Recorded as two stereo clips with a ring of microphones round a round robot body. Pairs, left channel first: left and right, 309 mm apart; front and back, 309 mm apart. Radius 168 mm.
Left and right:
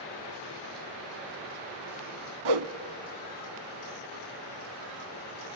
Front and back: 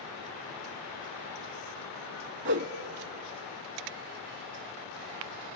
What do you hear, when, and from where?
2.5 s a whoosh: 120° right, 0.7 m